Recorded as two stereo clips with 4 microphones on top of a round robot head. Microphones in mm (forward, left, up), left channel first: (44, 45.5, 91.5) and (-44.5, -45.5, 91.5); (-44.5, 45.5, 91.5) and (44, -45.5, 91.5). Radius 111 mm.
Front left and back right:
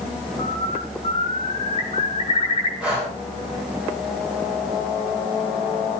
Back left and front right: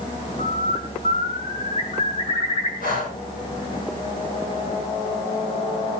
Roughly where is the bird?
Left.